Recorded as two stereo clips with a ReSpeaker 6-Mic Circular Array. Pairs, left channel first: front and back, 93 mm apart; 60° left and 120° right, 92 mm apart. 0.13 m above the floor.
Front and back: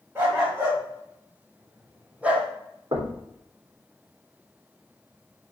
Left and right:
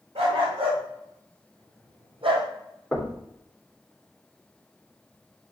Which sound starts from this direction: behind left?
Knocking, at 2.9 s.